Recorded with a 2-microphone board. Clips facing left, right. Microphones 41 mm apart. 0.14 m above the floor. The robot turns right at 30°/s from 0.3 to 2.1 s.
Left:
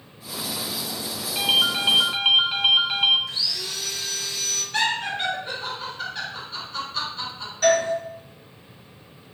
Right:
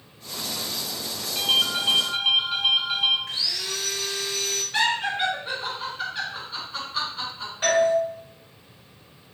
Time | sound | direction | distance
1.4 | a ringtone | 20° left (ahead or behind) | 0.8 m
3.3 | sawing | 45° right (ahead or behind) | 0.9 m
4.7 | laughter | 15° right (ahead or behind) | 1.7 m
7.6 | a doorbell | 25° right (ahead or behind) | 1.7 m